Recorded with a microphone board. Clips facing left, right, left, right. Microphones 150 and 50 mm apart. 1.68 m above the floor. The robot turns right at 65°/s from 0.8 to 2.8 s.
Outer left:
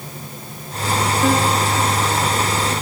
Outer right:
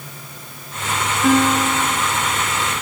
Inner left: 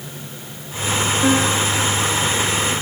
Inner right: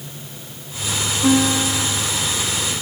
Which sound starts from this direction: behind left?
A guitar, at 1.2 s.